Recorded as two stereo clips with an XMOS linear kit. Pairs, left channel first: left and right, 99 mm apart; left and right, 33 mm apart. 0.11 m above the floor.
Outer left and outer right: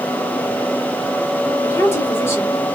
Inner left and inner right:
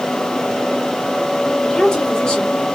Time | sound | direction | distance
1.6 | a woman speaking | 25° left (ahead or behind) | 2.5 m